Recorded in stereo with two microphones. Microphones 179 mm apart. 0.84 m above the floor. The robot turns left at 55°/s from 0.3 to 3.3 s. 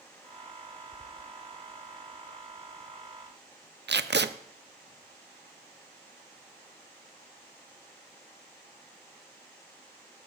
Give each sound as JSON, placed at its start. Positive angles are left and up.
{"t": 3.9, "sound": "tape being pulled", "side_deg": -75, "distance_m": 0.6}